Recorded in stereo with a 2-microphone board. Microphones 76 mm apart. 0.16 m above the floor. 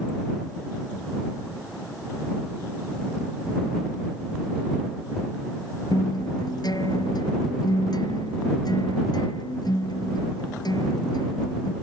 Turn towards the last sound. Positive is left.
turn(degrees=60)  # may be behind; listen again after turning